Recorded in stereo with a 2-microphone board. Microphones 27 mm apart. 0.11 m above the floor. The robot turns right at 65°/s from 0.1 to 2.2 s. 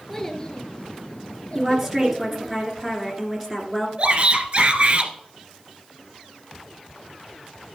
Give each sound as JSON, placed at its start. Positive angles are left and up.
{"t": 0.1, "sound": "a child speaking", "side_deg": 5, "distance_m": 1.9}
{"t": 1.6, "sound": "a woman speaking", "azimuth_deg": -35, "distance_m": 1.7}
{"t": 4.0, "sound": "a shout", "side_deg": -40, "distance_m": 1.8}